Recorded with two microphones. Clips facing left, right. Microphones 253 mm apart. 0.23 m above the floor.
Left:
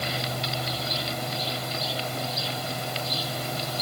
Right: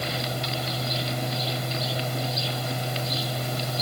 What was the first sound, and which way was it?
Only background noise.